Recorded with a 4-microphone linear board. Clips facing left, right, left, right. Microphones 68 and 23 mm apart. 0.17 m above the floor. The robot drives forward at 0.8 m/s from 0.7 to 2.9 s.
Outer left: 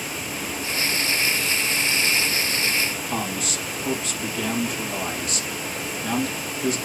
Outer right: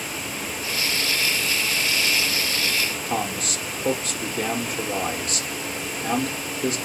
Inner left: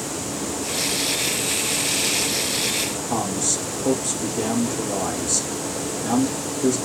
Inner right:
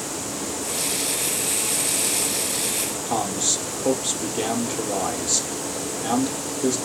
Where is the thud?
I don't hear a thud.